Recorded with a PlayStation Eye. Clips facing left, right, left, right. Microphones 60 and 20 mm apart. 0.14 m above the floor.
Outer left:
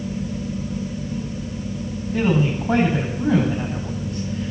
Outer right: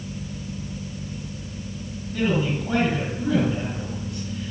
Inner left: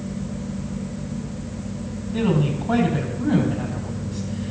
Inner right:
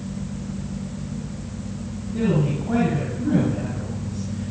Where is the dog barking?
I don't hear a dog barking.